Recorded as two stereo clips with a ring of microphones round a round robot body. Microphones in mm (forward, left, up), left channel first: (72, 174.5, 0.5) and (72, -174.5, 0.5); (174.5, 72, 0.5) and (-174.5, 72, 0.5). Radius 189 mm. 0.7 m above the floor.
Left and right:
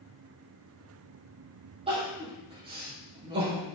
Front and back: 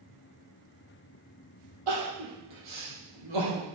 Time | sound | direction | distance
1.9 | crying | 165° right | 4.5 m